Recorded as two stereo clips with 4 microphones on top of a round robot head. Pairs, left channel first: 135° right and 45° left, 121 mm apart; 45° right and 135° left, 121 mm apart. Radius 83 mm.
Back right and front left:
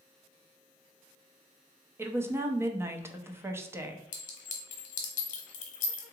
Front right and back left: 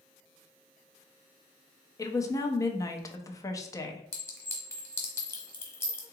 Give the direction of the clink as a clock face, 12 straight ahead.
4 o'clock.